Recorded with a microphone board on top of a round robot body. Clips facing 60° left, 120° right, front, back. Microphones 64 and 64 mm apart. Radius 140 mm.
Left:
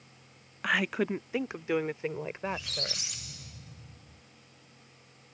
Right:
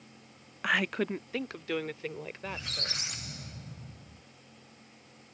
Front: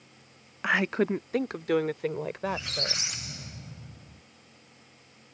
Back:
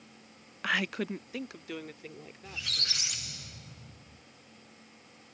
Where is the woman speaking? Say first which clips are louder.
Left 1 dB, front 6 dB; 35° right; by 3.1 s straight ahead.